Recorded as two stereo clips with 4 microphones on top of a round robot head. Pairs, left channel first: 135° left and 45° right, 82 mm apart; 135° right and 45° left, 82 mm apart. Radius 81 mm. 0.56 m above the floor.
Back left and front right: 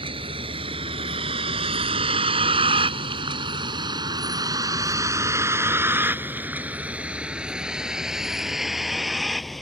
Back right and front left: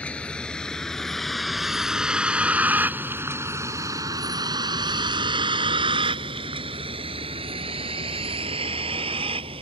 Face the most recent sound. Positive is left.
turn(degrees=50)